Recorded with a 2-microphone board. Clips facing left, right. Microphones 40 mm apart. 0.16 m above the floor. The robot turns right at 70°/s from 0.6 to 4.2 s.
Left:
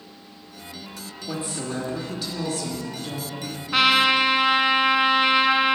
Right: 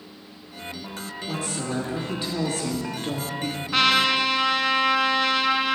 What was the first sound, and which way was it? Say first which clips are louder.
A woman speaking: even; 150° left.